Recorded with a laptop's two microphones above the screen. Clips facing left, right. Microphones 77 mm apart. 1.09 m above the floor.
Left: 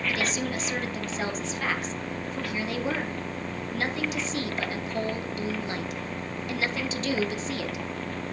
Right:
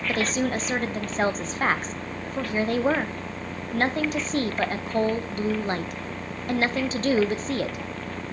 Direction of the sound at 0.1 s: 45° right (ahead or behind).